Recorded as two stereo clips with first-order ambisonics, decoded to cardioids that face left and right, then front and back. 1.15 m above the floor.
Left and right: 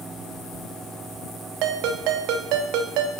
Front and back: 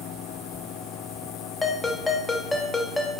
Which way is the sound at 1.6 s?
75° right.